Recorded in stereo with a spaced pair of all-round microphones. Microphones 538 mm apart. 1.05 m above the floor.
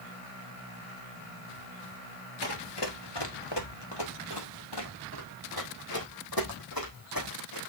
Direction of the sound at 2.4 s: 45° left (ahead or behind).